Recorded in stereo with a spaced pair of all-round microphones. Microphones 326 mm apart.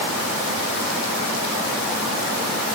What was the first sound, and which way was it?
Only background noise.